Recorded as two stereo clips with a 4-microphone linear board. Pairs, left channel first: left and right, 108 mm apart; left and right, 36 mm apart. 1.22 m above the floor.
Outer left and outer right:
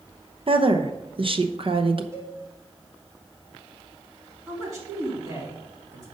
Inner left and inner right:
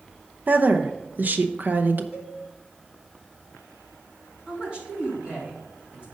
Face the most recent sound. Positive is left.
turn(degrees=-35)  # may be behind; listen again after turning